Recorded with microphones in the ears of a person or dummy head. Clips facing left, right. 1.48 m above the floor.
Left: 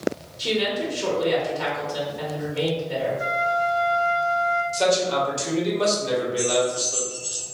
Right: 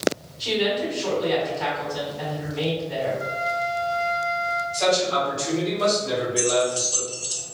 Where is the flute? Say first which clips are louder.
Left 3 dB; 80° left, 1.7 m.